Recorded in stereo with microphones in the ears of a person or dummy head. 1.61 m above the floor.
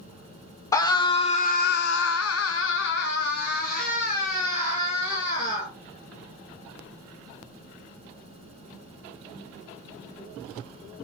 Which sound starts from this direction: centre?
A scream, at 0.7 s.